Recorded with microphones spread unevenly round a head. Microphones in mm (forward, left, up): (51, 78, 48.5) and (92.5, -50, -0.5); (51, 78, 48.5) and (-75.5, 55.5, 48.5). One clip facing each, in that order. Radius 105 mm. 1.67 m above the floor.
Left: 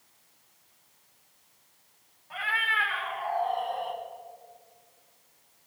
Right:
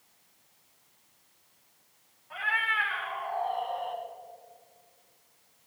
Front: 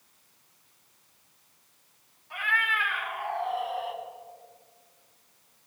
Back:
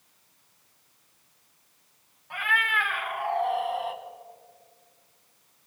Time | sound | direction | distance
2.3 | a cat meowing | 160° left | 3.5 m